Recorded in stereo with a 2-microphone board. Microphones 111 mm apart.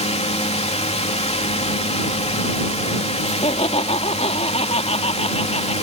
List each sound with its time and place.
0.0 s a drone: 75° left (ahead or behind)
3.2 s laughter: 75° left (ahead or behind)